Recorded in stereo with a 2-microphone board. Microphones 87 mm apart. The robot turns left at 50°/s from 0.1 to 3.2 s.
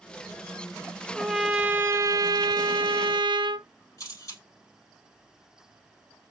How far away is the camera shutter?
About 3.5 m.